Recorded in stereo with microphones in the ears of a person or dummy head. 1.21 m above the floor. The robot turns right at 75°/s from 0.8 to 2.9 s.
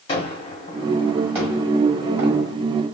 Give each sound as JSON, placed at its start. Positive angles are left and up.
{"t": 0.1, "sound": "a gunshot", "side_deg": 30, "distance_m": 1.6}